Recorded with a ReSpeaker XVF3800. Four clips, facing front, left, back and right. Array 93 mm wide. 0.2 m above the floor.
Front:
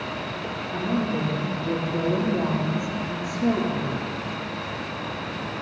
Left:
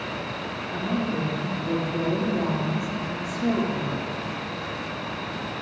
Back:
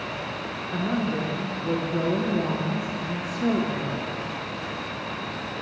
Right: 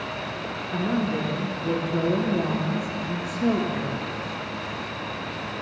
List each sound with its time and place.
0.7 s a woman speaking: 130° right, 4 m